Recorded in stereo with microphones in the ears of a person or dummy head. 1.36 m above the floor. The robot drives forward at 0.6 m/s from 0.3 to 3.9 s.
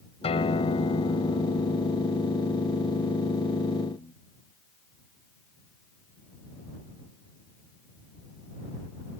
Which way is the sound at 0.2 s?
30° left (ahead or behind).